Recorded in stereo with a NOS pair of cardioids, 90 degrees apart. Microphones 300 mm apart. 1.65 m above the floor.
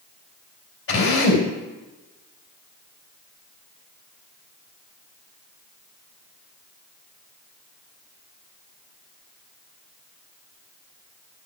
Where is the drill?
45° left, 4 m.